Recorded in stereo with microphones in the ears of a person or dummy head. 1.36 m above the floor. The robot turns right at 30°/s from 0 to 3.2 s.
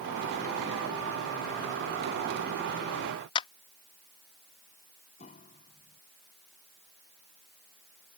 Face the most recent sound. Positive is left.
turn(degrees=40)  # may be behind; listen again after turning